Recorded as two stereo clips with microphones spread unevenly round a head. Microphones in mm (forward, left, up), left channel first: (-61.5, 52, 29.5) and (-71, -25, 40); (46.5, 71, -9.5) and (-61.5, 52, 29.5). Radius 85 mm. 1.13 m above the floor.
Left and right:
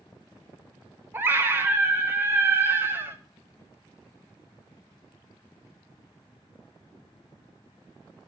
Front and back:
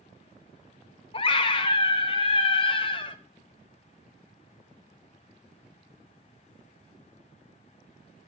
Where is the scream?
25° right, 0.6 m.